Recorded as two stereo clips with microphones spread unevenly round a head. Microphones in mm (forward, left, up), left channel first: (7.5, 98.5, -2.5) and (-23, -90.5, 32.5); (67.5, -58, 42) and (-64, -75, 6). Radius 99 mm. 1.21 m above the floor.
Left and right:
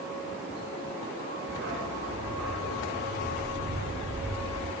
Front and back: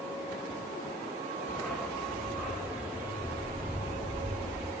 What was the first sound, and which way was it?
A dog barking, 70° right.